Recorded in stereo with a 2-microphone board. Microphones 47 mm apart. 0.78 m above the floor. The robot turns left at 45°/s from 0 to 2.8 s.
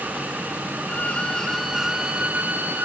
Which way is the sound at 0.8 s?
35° left.